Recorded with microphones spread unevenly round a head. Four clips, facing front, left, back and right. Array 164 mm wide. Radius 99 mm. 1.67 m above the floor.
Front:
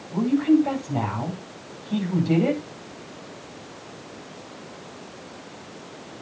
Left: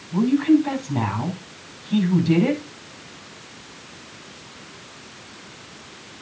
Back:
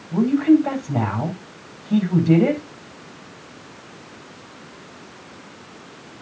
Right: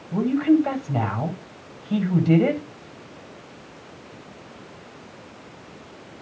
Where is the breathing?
I don't hear breathing.